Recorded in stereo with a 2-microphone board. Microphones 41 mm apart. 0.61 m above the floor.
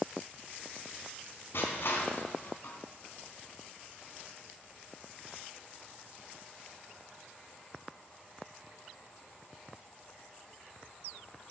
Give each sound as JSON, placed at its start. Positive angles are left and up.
{"t": 1.5, "sound": "crushing", "side_deg": 70, "distance_m": 3.0}